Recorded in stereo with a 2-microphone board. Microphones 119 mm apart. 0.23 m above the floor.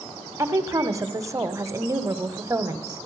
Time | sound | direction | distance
0.4 | a woman speaking | 25° right (ahead or behind) | 1.0 m